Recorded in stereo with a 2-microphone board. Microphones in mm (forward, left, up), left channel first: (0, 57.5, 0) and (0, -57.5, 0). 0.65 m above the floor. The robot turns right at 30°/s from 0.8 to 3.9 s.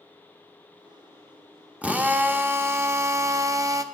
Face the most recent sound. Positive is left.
turn(degrees=-95)